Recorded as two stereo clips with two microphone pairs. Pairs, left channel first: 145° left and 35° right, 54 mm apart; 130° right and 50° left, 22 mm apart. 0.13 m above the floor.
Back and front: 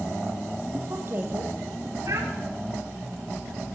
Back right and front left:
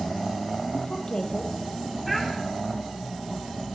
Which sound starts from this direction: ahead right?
A child speaking, at 2.1 s.